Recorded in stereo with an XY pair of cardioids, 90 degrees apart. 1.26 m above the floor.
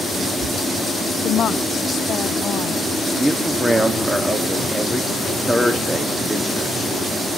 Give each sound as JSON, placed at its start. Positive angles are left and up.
{"t": 1.2, "sound": "a woman speaking", "azimuth_deg": 60, "distance_m": 0.9}
{"t": 3.1, "sound": "a man speaking", "azimuth_deg": -10, "distance_m": 2.5}